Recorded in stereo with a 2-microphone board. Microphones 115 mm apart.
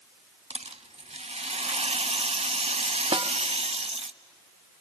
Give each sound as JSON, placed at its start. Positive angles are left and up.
{"t": 0.5, "sound": "a rattle", "side_deg": -65, "distance_m": 0.6}
{"t": 3.1, "sound": "a snare drum", "side_deg": -55, "distance_m": 0.8}